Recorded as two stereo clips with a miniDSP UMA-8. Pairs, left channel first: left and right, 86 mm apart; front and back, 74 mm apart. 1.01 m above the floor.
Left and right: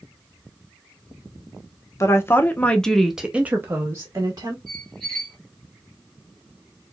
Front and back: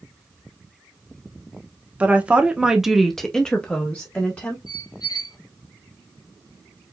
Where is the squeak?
5° left, 2 m.